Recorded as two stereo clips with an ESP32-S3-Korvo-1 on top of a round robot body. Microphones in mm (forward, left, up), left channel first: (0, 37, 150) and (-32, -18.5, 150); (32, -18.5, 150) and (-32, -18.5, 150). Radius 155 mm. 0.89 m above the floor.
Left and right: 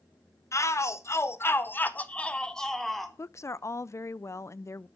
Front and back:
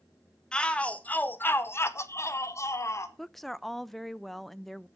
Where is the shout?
70° left, 1.4 m; by 3.1 s 30° right, 1.5 m.